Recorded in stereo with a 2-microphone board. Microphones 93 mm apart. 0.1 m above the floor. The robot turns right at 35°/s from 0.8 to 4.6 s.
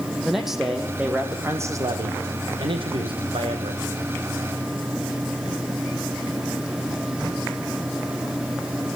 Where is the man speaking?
175° right, 4.5 m; by 3.8 s 70° right, 4.5 m.